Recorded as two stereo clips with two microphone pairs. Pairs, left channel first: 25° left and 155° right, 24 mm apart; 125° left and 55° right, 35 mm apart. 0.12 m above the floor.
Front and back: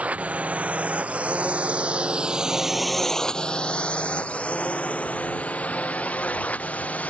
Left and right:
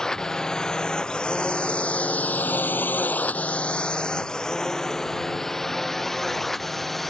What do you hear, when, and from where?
0.0 s a drone: 165° right; by 7.1 s 35° left